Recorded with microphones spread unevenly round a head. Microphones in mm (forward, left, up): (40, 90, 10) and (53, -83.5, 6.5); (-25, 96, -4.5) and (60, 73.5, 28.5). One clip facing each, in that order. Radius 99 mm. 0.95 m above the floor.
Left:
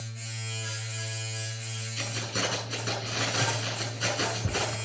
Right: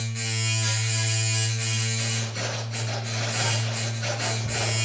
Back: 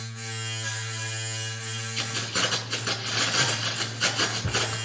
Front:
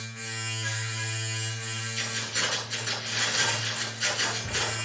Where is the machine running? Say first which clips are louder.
Right 9 dB, back 1 dB; 110° right, 1.1 m.